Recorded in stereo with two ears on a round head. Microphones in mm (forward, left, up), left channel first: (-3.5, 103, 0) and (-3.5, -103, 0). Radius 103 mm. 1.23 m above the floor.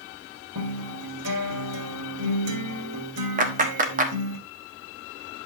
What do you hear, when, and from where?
0.6 s a guitar: 75° right (ahead or behind), 2.5 m
3.4 s a clap: 35° right (ahead or behind), 1.4 m